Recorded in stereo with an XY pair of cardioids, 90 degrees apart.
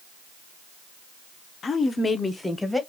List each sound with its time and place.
1.6 s a woman speaking: 50° left, 0.6 m; by 2.8 s 15° left, 1.0 m